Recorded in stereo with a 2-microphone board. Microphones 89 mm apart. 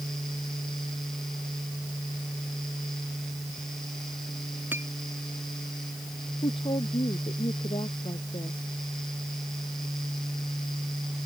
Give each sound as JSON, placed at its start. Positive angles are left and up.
{"t": 4.7, "sound": "a clink", "side_deg": -25}
{"t": 6.4, "sound": "a woman speaking", "side_deg": 85}